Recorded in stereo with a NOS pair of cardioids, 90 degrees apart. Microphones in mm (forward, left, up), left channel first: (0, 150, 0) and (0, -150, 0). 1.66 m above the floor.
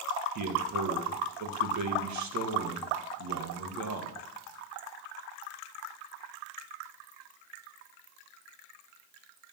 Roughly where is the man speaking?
Ahead right.